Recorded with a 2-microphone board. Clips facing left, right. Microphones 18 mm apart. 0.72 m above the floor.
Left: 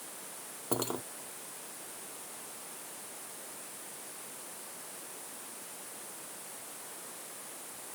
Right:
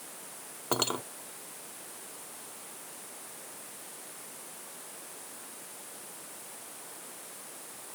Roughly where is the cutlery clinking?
Right.